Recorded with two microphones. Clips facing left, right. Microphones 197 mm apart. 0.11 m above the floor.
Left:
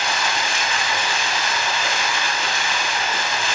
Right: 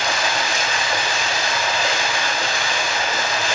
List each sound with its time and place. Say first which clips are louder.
0.0 s running water: right 2 dB; 45° right (ahead or behind), 1.4 m